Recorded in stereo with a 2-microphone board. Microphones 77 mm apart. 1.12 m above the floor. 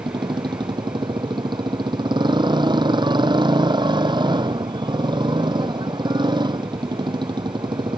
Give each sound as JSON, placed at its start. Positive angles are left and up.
{"t": 0.0, "sound": "a motorcycle", "side_deg": -85}